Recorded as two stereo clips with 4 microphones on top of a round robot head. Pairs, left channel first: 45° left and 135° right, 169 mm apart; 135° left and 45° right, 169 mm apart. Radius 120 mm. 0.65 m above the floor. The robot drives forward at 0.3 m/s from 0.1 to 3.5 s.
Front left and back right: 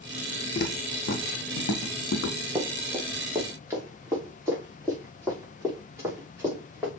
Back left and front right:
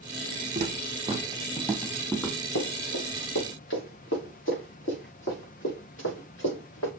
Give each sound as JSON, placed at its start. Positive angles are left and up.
{"t": 0.6, "sound": "footsteps", "azimuth_deg": 5, "distance_m": 1.1}
{"t": 2.5, "sound": "running footsteps", "azimuth_deg": 150, "distance_m": 3.5}